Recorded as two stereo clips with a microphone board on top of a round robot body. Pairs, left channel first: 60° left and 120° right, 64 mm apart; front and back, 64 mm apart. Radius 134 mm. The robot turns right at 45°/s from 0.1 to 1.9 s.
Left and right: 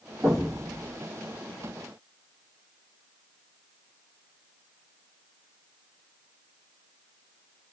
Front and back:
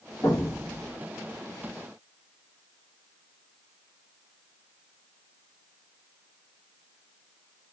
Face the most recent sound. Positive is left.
turn(degrees=30)